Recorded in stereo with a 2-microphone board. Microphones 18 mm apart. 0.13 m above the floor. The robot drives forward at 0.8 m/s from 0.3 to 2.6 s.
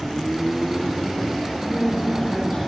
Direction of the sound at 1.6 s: 75° left (ahead or behind).